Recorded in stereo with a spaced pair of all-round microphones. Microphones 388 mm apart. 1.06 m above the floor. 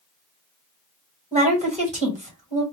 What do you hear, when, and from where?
1.3 s a woman speaking: 15° right (ahead or behind), 1.4 m